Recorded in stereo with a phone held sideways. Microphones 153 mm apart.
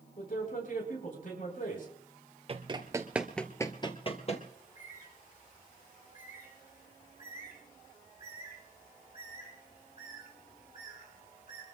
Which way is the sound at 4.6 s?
65° left (ahead or behind).